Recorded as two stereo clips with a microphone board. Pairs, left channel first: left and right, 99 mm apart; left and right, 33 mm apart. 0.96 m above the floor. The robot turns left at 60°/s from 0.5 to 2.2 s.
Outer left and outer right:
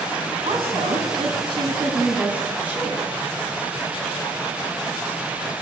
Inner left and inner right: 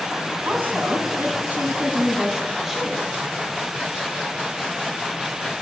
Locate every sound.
0.5 s a woman speaking: 60° right, 8 m; by 3.1 s 165° right, 8 m